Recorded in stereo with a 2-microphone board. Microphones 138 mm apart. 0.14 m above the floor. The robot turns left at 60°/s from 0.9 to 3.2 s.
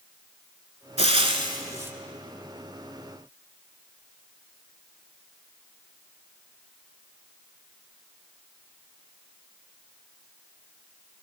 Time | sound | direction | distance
1.0 | frying | 105° right | 0.7 m